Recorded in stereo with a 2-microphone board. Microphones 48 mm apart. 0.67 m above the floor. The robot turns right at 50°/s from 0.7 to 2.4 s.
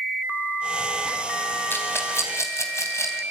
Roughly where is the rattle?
Left.